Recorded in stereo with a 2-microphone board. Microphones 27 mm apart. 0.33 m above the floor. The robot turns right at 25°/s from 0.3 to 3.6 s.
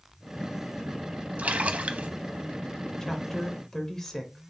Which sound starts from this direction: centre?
A woman speaking, at 3.0 s.